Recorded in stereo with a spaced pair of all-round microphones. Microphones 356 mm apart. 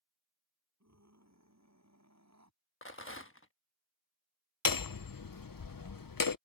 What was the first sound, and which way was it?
A scream, 50° right (ahead or behind).